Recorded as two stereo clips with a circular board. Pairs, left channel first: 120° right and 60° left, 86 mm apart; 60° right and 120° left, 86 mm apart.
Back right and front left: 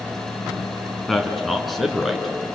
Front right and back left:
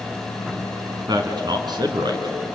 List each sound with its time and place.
1.1 s a man speaking: 150° left, 2.5 m